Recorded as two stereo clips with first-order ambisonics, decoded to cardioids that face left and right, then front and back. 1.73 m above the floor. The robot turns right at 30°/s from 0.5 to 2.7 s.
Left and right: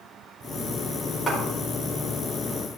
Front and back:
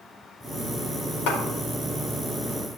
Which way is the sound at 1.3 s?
10° left.